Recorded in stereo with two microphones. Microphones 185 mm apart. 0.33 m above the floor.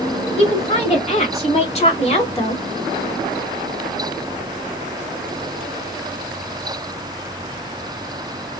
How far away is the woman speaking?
About 2 m.